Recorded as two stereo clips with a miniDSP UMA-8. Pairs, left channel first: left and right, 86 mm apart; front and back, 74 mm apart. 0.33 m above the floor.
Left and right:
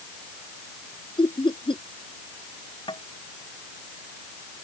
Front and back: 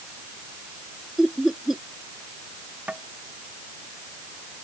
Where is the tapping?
110° left.